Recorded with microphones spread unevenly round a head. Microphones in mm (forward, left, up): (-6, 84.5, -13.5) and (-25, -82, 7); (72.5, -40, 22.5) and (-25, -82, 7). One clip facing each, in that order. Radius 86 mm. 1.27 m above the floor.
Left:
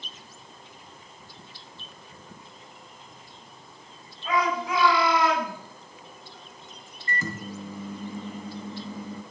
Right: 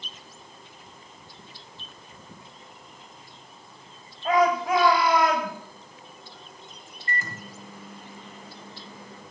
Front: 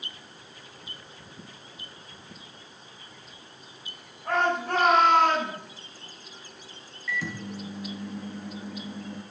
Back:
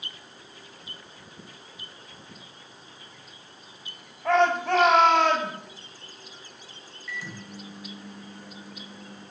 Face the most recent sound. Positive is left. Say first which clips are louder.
# left 4 dB, front 6 dB
turn(degrees=70)